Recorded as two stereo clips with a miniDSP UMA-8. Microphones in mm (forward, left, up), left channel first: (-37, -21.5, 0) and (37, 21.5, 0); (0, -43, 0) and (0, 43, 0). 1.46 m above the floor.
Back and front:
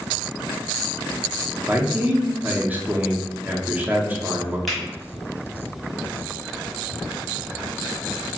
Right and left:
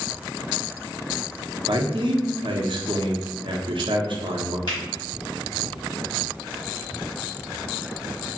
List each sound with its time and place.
1.7 s a man speaking: 100° left, 0.6 m
4.7 s a finger snap: 60° right, 1.4 m